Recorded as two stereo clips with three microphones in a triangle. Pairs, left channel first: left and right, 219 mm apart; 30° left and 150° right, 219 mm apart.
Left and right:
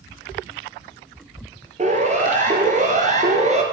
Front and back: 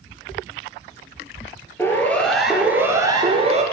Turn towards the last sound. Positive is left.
turn(degrees=-120)